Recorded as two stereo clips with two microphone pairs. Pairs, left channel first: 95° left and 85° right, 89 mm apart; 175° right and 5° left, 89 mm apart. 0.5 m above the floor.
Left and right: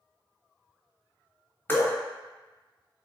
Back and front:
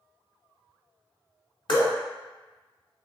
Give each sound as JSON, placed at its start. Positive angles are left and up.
{"t": 1.7, "sound": "dripping", "azimuth_deg": 160, "distance_m": 0.9}